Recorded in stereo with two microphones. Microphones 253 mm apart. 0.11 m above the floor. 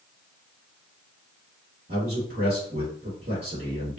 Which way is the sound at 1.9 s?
45° right (ahead or behind).